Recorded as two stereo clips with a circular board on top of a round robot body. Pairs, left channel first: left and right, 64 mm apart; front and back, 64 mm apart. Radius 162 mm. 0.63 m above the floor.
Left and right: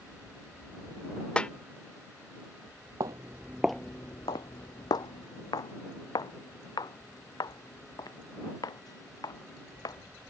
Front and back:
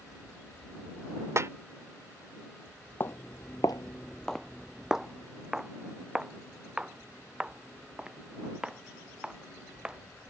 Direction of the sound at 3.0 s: 60° right.